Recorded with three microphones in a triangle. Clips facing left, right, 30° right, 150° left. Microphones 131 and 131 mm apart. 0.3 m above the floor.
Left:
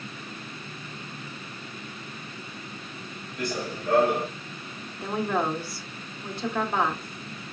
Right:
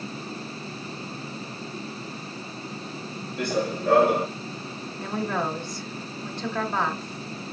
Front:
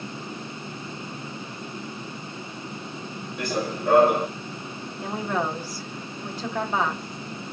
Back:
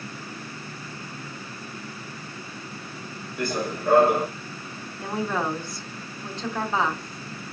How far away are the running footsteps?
About 1.4 m.